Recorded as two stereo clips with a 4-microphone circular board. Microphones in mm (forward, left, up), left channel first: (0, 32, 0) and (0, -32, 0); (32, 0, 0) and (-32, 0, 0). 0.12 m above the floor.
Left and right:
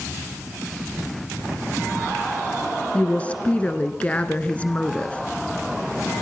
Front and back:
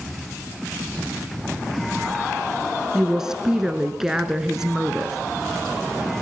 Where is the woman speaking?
115° left, 1.1 m.